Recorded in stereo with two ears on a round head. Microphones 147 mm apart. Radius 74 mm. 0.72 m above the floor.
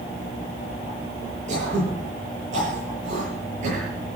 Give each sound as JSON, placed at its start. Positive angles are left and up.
{"t": 1.5, "sound": "throat clearing", "side_deg": -45, "distance_m": 9.0}